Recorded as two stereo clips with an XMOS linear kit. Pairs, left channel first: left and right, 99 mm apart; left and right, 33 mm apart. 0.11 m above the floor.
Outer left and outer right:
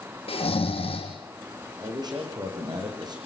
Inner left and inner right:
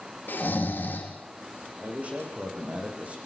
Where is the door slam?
No door slam in this recording.